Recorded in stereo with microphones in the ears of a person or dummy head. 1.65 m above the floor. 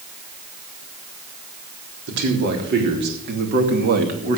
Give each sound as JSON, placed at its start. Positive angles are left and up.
{"t": 2.1, "sound": "a man speaking", "side_deg": -60, "distance_m": 3.5}